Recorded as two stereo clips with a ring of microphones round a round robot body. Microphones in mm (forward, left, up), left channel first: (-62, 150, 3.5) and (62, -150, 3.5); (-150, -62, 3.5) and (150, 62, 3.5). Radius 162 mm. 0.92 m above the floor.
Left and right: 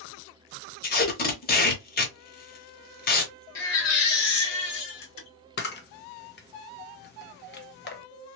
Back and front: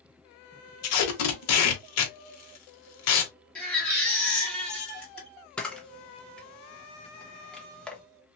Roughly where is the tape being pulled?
Behind.